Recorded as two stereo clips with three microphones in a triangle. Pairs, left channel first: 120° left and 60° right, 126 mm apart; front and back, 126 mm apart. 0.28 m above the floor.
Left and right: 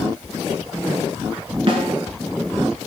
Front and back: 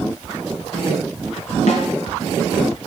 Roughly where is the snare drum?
Ahead.